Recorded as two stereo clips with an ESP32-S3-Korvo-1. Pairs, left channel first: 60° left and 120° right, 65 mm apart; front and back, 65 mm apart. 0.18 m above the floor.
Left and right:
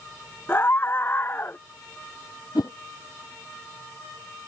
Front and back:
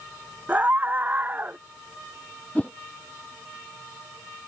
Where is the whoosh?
70° left.